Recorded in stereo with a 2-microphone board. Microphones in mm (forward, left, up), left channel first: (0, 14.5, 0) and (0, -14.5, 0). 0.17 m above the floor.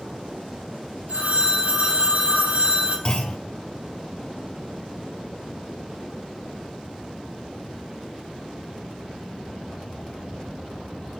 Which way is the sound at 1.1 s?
60° right (ahead or behind).